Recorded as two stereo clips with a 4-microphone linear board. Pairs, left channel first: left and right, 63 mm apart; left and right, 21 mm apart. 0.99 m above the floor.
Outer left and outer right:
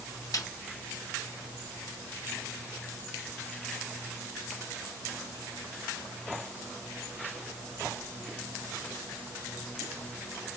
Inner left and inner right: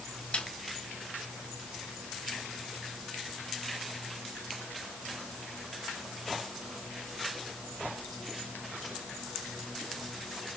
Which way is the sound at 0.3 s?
65° left (ahead or behind).